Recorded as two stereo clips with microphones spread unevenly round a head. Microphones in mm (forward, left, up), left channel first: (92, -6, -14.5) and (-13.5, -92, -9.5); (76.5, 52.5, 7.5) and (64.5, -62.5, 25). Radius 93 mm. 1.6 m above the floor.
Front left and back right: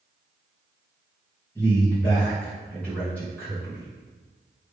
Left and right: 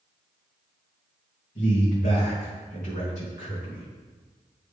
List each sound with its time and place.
1.6 s a man speaking: 120° left, 2 m